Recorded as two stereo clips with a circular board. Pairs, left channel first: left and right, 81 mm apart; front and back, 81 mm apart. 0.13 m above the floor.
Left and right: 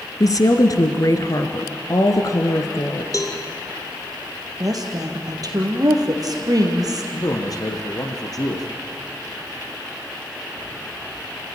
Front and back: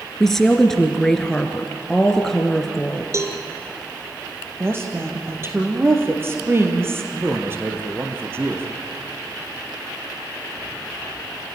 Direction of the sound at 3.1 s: 130° left.